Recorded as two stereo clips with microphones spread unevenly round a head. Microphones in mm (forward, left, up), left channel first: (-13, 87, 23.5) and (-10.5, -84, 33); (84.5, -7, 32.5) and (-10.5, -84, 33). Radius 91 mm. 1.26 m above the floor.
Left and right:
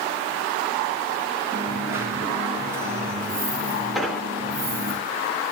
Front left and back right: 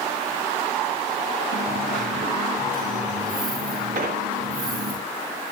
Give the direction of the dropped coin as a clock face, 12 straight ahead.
5 o'clock.